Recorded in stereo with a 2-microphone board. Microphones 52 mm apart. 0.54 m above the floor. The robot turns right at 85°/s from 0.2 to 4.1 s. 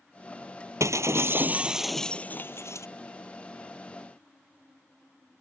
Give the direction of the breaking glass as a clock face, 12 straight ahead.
3 o'clock.